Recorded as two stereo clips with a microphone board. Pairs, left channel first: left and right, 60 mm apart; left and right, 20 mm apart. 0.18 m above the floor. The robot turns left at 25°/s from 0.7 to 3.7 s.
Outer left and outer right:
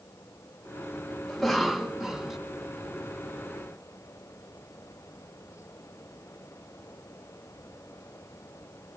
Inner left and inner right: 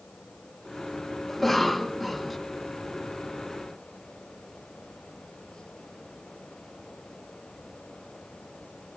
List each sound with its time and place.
1.3 s a cough: 5° left (ahead or behind), 1.0 m; by 2.4 s 5° right (ahead or behind), 1.0 m